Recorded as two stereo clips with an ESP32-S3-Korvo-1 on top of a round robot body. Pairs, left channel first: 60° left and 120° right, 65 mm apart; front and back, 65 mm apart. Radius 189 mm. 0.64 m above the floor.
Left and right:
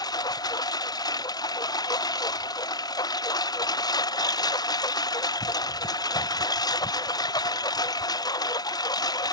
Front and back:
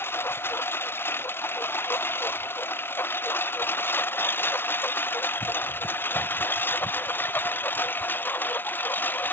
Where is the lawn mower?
55° left; by 9.3 s 60° left.